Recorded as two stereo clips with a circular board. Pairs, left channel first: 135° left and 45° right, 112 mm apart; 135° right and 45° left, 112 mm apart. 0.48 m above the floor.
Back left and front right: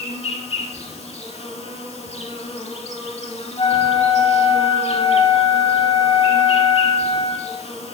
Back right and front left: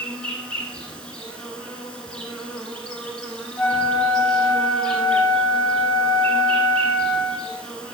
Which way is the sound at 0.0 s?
145° left.